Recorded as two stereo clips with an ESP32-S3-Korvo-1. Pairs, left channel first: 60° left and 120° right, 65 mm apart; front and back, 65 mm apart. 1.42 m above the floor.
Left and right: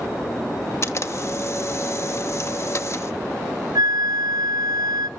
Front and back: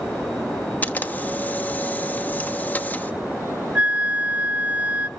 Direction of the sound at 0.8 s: 50° left.